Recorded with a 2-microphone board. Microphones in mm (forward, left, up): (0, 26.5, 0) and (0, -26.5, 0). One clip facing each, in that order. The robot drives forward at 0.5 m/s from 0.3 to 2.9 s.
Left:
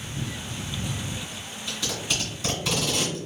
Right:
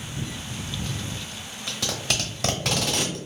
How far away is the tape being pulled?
About 1.1 m.